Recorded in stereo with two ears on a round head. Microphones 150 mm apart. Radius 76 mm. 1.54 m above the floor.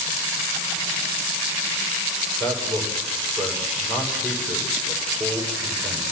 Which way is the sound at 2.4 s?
10° left (ahead or behind).